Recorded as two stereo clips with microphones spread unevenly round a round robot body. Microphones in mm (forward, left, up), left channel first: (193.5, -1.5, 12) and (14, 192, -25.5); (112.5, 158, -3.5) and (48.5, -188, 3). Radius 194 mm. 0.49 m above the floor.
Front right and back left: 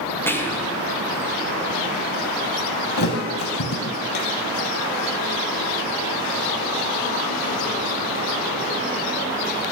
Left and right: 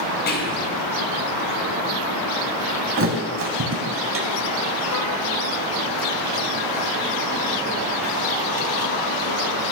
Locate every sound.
0.3 s whispering: 40° left, 0.8 m
3.0 s a thud: 45° right, 0.9 m